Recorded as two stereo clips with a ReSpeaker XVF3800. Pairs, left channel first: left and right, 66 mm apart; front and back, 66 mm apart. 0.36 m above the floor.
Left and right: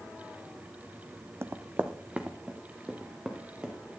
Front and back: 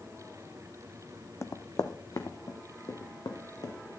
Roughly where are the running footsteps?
Ahead right.